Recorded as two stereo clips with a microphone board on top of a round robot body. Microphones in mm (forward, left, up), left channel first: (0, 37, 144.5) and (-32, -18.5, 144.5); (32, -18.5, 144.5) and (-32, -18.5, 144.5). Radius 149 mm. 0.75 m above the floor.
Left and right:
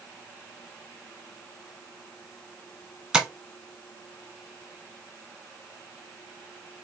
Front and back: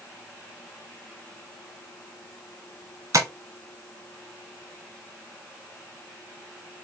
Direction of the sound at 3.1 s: 160° left.